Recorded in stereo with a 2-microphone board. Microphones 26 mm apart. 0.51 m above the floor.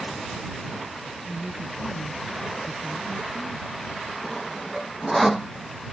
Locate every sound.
1.2 s a woman speaking: centre (ahead or behind)
4.2 s sawing: centre (ahead or behind)